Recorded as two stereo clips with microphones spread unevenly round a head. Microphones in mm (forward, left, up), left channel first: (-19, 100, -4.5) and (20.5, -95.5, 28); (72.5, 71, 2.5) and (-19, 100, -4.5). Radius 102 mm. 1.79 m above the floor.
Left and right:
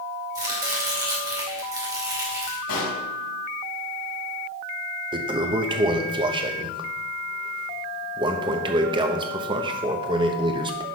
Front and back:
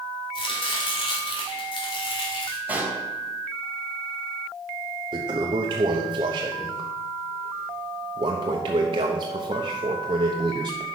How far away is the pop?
About 3 m.